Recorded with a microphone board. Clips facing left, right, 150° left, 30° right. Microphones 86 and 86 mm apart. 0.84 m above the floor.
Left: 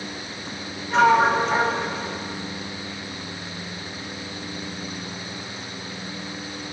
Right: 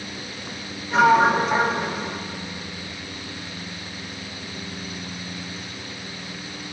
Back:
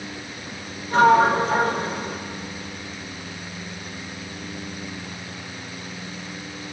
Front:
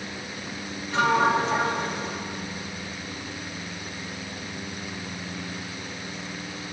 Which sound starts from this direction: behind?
A sliding door, at 0.9 s.